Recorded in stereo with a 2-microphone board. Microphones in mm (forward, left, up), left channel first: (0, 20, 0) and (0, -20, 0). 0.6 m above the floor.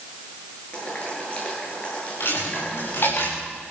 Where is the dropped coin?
65° left (ahead or behind), 9 m.